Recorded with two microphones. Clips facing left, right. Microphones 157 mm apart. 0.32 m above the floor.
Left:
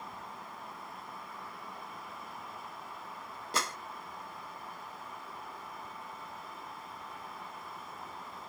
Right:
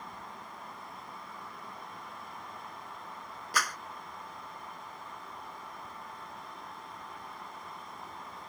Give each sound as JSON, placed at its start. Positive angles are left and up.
{"t": 3.5, "sound": "a clap", "side_deg": 25}